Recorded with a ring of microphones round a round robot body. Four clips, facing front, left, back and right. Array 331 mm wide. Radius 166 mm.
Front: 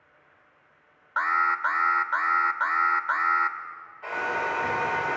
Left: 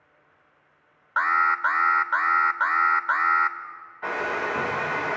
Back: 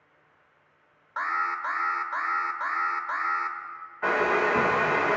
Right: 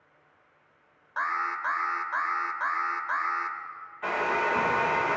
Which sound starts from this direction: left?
An alarm, at 1.2 s.